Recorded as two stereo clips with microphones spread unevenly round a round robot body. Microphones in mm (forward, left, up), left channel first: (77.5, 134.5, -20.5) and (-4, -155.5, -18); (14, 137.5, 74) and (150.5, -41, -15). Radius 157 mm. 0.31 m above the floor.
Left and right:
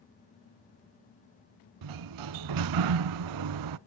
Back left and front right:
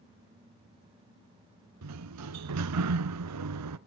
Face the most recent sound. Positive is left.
turn(degrees=-85)